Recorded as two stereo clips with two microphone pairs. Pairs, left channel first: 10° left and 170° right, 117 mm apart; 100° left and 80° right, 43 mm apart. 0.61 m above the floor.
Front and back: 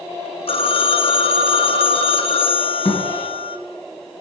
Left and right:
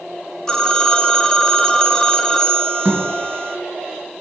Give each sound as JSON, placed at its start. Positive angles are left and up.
{"t": 0.5, "sound": "a phone ringing", "azimuth_deg": 30, "distance_m": 0.8}
{"t": 2.9, "sound": "a thud", "azimuth_deg": -20, "distance_m": 4.0}